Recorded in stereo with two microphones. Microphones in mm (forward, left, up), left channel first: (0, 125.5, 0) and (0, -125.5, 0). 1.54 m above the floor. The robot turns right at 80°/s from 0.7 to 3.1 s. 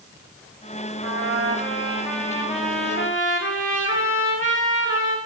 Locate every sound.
1.0 s a trumpet: 90° right, 1.5 m; by 5.2 s 75° left, 1.5 m